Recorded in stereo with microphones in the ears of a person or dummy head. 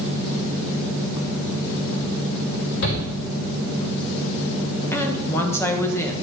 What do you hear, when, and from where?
2.8 s a shout: 80° left, 4.5 m
4.9 s a woman speaking: 15° left (ahead or behind), 1.3 m